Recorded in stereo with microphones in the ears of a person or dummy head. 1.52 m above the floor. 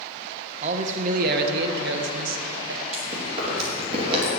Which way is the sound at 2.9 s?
35° right (ahead or behind).